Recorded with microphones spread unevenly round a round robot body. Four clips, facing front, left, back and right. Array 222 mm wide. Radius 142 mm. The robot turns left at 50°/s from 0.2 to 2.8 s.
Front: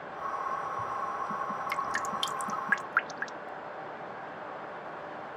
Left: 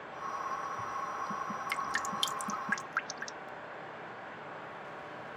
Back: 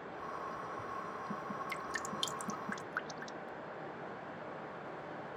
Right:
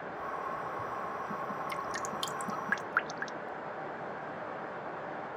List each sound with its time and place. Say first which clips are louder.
1.7 s dripping: left 1 dB, front 9 dB; 40° left; by 3.5 s 15° right